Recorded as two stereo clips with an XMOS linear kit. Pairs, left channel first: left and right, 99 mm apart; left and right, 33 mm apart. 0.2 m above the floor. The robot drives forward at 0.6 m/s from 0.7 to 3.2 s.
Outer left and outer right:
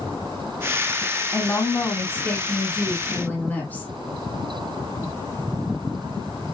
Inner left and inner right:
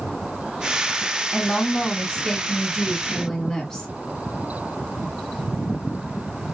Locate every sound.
1.3 s a woman speaking: 25° left (ahead or behind), 1.2 m; by 3.9 s 15° left (ahead or behind), 1.9 m